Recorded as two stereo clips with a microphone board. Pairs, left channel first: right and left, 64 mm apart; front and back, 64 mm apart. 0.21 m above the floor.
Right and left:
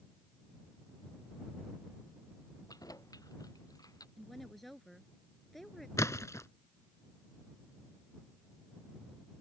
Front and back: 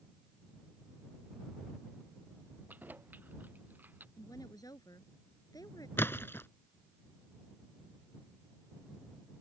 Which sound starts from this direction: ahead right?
A splash, at 6.0 s.